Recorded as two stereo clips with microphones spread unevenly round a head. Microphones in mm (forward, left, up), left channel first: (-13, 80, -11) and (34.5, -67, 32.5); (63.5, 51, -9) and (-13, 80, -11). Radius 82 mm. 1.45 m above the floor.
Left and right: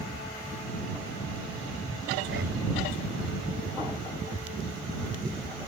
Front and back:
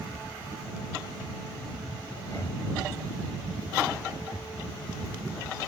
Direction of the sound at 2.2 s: 95° right.